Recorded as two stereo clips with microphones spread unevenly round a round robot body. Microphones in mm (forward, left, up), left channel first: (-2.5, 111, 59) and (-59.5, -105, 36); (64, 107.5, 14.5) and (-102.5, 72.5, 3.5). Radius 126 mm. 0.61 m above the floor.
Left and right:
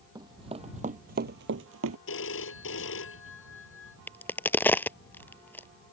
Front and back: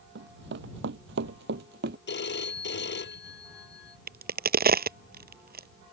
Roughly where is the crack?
Behind left.